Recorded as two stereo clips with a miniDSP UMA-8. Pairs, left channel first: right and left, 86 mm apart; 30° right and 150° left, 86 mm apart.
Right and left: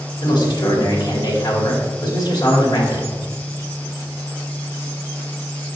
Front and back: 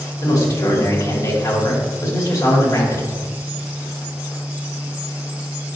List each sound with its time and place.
0.2 s a man speaking: 65° right, 2.5 m